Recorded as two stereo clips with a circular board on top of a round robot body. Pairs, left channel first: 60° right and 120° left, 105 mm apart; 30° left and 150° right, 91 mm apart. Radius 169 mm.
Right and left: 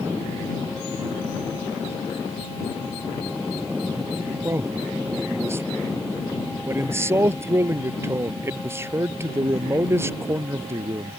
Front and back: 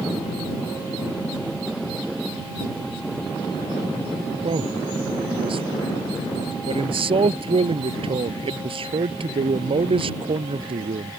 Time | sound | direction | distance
4.4 | a man speaking | 175° right | ?